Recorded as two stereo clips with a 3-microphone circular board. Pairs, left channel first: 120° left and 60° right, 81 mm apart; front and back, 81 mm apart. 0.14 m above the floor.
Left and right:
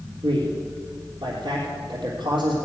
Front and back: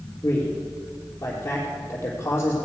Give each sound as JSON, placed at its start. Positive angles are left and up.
{"t": 0.2, "sound": "a man speaking", "azimuth_deg": -60, "distance_m": 3.5}